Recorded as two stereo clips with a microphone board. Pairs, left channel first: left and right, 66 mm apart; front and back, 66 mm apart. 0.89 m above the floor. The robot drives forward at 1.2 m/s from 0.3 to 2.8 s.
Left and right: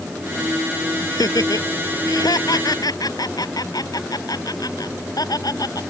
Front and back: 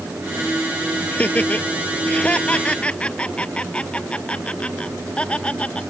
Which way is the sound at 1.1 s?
65° left.